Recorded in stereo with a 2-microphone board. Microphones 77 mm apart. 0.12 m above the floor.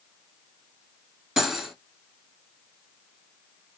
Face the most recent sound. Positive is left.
turn(degrees=-10)  # may be behind; listen again after turning